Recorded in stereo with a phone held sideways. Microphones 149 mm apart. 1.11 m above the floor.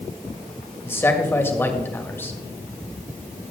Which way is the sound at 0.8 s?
15° left (ahead or behind).